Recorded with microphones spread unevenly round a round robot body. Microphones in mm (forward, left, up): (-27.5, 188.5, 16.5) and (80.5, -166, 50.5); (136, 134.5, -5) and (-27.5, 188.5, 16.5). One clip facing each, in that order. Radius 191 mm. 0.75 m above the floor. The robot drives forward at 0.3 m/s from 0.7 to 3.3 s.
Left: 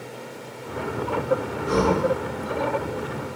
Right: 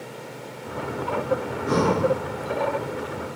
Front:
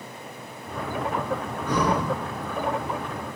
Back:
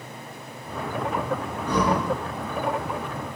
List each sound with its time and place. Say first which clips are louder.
1.7 s breathing: even, back 1 dB; 90° right, 1.3 m; by 2.1 s 95° right, 1.3 m